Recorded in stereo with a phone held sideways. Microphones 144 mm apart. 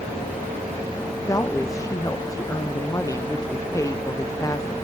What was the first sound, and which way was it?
A woman speaking, 20° left (ahead or behind).